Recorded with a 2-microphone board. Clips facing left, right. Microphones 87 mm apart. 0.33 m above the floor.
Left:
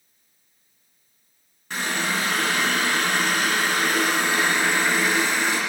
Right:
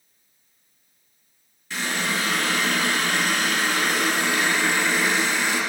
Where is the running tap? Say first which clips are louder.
Left 1 dB; 50° left (ahead or behind), 2 m.